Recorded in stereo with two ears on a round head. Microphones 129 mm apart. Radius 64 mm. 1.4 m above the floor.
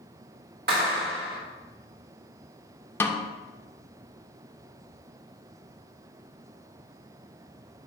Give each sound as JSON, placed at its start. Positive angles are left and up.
{"t": 0.7, "sound": "a clap", "side_deg": -75, "distance_m": 2.0}
{"t": 3.0, "sound": "a snare drum", "side_deg": 15, "distance_m": 0.6}